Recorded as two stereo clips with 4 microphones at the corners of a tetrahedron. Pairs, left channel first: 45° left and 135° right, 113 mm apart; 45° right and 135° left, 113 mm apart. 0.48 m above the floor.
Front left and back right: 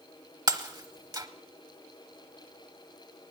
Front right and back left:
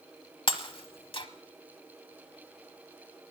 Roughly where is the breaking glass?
Right.